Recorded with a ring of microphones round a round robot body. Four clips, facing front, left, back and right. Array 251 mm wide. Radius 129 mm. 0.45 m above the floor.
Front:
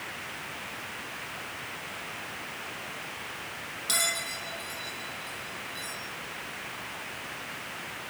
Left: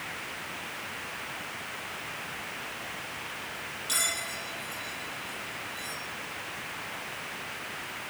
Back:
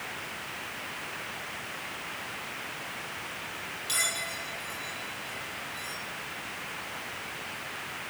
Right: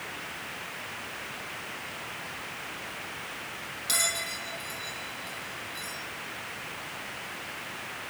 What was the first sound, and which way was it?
A bell, 50° right.